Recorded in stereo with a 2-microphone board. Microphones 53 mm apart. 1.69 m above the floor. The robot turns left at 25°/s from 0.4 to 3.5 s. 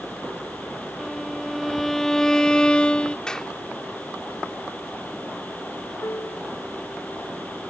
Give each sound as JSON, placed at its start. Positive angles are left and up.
{"t": 1.0, "sound": "a violin", "side_deg": -5}
{"t": 3.3, "sound": "a clap", "side_deg": 15}
{"t": 6.0, "sound": "a piano", "side_deg": 80}